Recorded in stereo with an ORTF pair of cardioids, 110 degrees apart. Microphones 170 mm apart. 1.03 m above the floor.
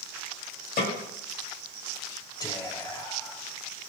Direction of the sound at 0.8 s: 70° left.